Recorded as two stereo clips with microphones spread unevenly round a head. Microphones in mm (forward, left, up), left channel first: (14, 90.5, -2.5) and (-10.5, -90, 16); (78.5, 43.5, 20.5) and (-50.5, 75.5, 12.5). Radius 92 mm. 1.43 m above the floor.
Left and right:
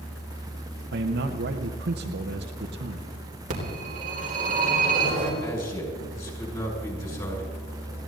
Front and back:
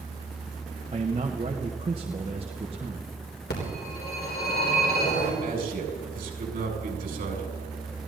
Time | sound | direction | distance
0.9 | a man speaking | 130° right | 1.0 m
3.5 | a phone ringing | 50° right | 4 m
5.4 | a man speaking | 150° left | 6 m